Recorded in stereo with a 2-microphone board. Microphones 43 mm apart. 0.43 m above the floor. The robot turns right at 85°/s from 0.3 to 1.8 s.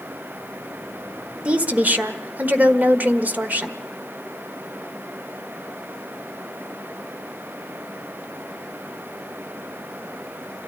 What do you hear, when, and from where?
1.4 s a woman speaking: 30° right (ahead or behind), 1.4 m; by 3.8 s 40° right (ahead or behind), 1.4 m